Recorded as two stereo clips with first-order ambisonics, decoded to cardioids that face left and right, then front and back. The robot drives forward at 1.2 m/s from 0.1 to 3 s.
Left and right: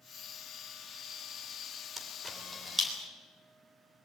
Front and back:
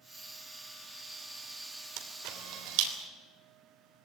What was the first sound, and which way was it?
A camera shutter, 175° right.